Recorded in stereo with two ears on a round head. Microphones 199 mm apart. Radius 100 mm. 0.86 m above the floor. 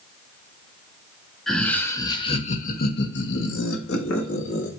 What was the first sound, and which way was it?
Laughter, centre (ahead or behind).